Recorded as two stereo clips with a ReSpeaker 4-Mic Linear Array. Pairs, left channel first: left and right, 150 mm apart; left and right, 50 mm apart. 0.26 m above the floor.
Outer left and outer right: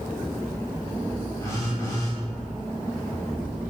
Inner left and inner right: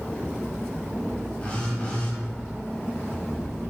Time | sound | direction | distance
1.4 | a phone buzzing | 20° left (ahead or behind) | 1.0 m